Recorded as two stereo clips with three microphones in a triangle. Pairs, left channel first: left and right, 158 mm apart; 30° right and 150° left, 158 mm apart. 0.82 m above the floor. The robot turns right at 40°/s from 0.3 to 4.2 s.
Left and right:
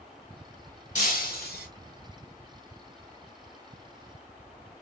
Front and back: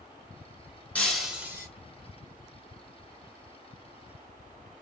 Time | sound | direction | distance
0.9 | breaking glass | 50° left | 1.8 m